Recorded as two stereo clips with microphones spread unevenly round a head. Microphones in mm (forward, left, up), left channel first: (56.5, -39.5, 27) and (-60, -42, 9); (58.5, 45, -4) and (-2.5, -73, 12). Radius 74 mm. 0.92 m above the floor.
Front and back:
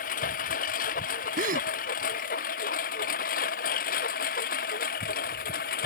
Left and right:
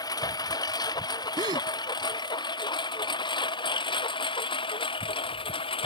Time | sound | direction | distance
0.0 | a lawn mower | straight ahead | ?
1.4 | a gasp | straight behind | ?